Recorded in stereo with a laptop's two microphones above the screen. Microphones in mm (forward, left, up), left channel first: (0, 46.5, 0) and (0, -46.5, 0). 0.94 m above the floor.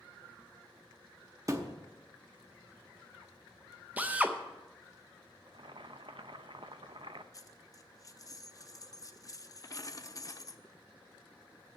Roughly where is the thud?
Right.